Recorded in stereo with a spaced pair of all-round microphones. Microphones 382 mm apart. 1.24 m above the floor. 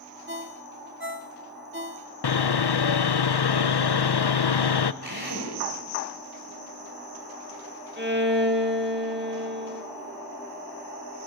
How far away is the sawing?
About 0.6 m.